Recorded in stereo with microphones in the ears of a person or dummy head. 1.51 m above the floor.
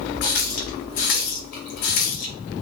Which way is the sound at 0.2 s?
55° left (ahead or behind).